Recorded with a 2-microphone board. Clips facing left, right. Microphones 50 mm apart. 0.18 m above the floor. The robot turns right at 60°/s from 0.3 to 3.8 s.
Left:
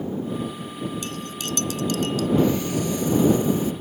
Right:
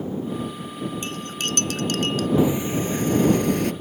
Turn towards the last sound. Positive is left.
turn(degrees=-85)